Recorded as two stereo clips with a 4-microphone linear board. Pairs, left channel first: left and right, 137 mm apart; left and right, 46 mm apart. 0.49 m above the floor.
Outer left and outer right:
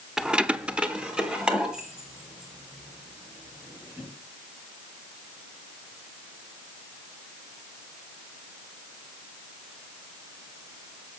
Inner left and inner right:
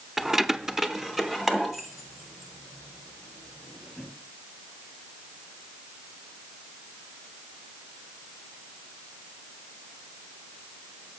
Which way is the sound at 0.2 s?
5° right (ahead or behind).